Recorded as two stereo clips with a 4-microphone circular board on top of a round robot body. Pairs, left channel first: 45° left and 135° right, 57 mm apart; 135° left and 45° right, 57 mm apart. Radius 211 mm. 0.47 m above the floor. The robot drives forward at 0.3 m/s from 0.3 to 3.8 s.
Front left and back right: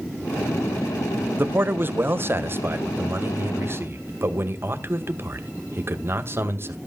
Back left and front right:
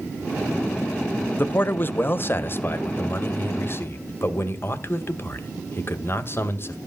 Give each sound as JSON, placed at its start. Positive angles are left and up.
{"t": 1.4, "sound": "a man speaking", "azimuth_deg": 180, "distance_m": 1.1}